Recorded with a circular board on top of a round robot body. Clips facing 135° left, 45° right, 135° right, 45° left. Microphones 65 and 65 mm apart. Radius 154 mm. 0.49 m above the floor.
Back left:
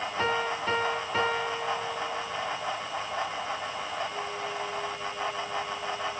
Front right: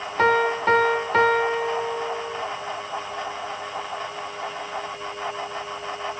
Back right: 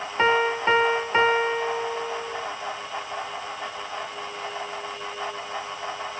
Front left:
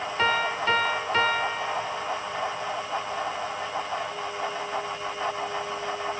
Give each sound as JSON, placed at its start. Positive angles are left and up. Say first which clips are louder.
{"t": 0.2, "sound": "a piano", "louder": "front right 10 dB, back right 4 dB", "azimuth_deg": -70, "distance_m": 1.0}